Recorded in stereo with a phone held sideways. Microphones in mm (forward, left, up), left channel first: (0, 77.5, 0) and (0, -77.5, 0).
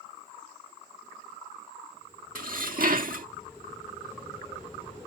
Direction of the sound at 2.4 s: 65° right (ahead or behind).